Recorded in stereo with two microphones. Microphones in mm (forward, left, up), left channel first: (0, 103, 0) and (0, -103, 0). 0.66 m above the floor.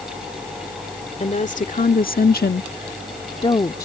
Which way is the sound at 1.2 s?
35° left (ahead or behind).